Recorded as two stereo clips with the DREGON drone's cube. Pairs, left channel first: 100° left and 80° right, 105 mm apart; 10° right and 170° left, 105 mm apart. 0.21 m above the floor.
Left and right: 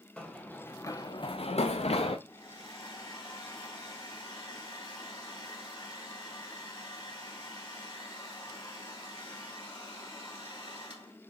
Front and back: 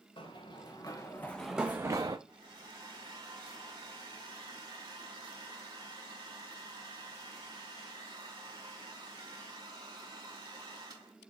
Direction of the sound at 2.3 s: 125° left.